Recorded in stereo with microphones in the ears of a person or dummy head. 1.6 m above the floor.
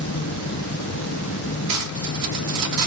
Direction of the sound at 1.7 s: 60° right (ahead or behind).